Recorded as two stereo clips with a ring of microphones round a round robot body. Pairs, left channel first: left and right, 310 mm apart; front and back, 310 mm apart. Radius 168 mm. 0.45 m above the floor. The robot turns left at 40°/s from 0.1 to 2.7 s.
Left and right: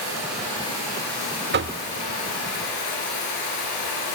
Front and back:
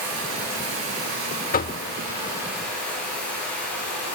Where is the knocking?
50° right, 1.0 m; by 1.8 s 60° right, 1.0 m.